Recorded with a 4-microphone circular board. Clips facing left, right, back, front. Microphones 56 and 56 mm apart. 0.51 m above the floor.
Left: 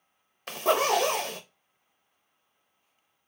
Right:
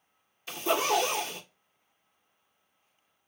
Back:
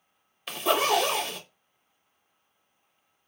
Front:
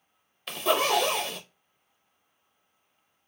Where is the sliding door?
No sliding door in this recording.